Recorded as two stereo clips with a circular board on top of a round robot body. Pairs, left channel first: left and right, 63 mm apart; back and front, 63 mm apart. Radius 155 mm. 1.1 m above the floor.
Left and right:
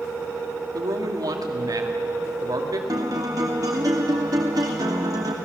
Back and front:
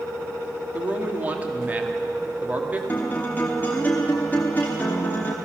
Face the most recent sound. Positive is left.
turn(degrees=-115)